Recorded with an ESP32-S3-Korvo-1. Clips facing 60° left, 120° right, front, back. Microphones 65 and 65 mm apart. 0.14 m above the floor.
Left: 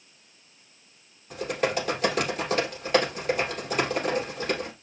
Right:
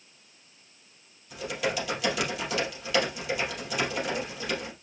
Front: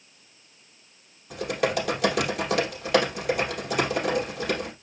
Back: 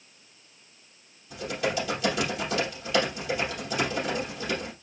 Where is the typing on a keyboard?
15° left, 3.5 m.